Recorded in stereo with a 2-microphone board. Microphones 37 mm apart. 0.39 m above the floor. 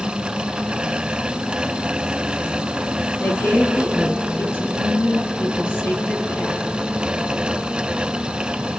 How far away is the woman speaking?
About 5 m.